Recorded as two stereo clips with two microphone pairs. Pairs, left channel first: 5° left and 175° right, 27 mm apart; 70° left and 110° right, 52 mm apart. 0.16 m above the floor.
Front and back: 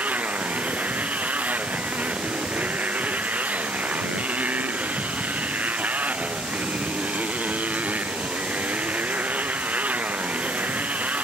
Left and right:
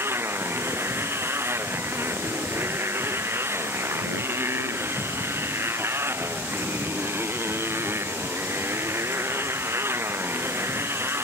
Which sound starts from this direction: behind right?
A motorcycle, at 0.0 s.